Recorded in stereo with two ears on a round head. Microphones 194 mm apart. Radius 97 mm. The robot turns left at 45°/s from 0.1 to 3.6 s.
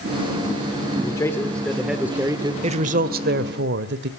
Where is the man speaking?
35° left, 1.2 m; by 2.5 s 35° right, 1.2 m.